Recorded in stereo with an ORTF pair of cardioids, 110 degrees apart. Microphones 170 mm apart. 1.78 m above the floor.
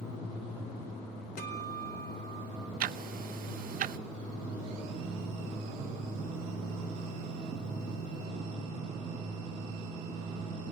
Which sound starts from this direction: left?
A guitar, at 1.4 s.